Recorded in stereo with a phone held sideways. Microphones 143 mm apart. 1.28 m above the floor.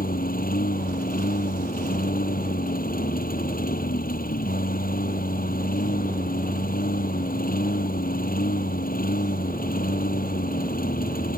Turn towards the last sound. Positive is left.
turn(degrees=85)